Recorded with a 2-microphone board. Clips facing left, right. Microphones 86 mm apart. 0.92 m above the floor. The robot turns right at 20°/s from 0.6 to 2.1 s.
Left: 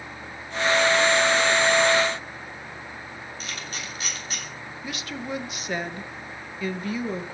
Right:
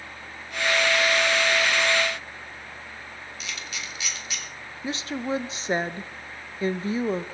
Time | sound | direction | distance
3.4 | a camera shutter | 45° left (ahead or behind) | 2.5 m
4.8 | a woman speaking | 30° right (ahead or behind) | 0.6 m